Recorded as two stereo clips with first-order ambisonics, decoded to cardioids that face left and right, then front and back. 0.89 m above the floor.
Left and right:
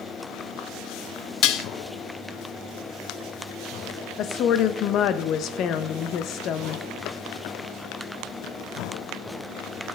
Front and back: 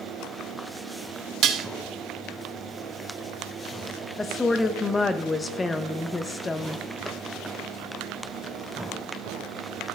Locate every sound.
1.4 s dishes clattering: 130° left, 0.5 m
4.2 s a woman speaking: 75° left, 0.5 m